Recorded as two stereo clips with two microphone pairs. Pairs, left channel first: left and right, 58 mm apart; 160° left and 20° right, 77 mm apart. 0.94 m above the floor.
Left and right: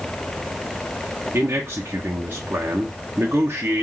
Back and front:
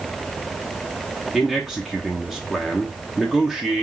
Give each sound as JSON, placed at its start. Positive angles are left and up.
{"t": 1.3, "sound": "a man speaking", "azimuth_deg": -110, "distance_m": 0.9}